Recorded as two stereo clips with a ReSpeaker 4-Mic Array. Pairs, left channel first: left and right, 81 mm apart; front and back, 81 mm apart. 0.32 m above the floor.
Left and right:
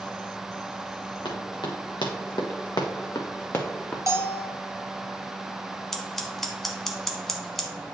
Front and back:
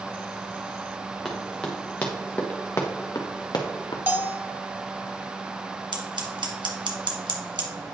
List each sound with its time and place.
1.2 s running footsteps: 85° left, 1.9 m; by 4.0 s 20° left, 1.2 m
4.1 s a bell: 125° right, 0.8 m
5.9 s scissors: 175° left, 1.3 m